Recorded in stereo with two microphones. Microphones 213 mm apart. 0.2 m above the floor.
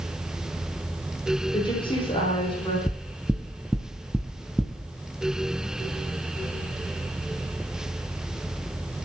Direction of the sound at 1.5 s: 25° left (ahead or behind).